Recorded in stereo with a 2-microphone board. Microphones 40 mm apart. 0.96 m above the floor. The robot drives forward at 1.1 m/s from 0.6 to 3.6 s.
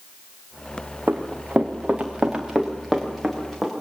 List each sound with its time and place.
1.1 s running footsteps: 40° right (ahead or behind), 3 m; by 3.7 s centre (ahead or behind), 6.5 m